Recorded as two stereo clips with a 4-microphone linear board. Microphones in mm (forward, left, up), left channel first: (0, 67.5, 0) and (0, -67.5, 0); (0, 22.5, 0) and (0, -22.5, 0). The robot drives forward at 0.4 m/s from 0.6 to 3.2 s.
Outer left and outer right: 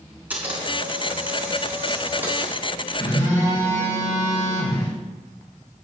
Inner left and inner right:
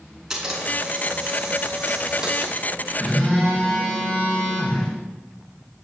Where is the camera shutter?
10° right (ahead or behind), 4.5 m; by 2.6 s 15° right (ahead or behind), 3.5 m.